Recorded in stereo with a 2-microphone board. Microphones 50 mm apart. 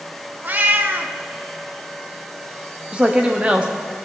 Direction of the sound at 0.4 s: 40° right (ahead or behind).